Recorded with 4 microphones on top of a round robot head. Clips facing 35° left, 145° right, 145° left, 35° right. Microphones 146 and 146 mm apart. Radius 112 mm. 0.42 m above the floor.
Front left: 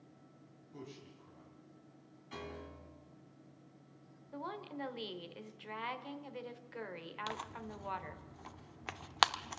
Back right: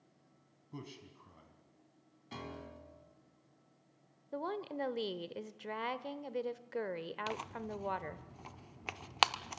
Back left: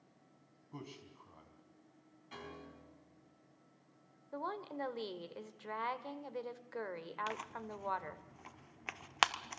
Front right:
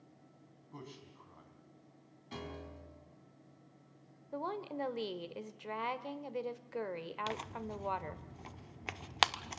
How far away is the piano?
About 4.5 m.